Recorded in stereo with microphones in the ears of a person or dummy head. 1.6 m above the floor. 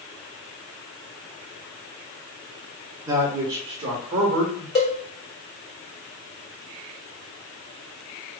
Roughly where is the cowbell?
Left.